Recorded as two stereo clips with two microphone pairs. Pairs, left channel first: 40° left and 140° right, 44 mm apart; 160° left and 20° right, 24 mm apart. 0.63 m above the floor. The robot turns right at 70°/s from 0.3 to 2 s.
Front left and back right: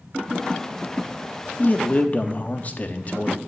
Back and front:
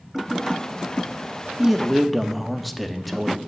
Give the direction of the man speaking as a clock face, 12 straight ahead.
11 o'clock.